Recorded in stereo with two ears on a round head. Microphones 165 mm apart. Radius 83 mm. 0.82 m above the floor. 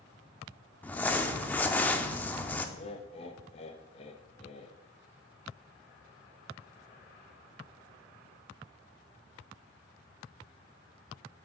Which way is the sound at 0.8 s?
10° left (ahead or behind).